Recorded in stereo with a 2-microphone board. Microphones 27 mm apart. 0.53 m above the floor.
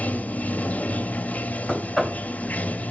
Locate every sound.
0.0 s running water: 75° left (ahead or behind), 0.9 m
1.7 s knocking: 10° right (ahead or behind), 1.8 m